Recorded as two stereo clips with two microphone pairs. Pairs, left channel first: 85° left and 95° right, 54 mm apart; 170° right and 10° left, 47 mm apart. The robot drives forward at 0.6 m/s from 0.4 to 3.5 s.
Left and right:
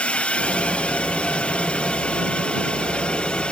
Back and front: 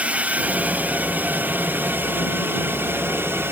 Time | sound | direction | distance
0.0 | a drone | 40° left | ?